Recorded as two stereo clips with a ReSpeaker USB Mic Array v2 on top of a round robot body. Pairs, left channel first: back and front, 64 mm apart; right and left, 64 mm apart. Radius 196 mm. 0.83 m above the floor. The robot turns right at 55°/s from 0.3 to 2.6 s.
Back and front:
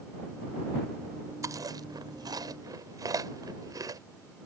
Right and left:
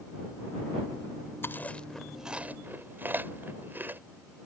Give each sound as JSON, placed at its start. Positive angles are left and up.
{"t": 1.4, "sound": "chewing", "azimuth_deg": -35}